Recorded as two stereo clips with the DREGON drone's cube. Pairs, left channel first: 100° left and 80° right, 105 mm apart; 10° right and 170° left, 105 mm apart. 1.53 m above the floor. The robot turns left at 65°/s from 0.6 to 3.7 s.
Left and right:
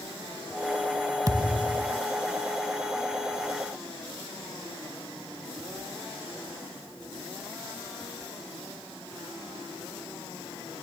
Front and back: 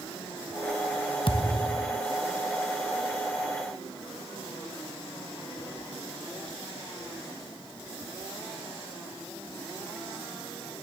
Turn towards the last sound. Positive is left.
turn(degrees=175)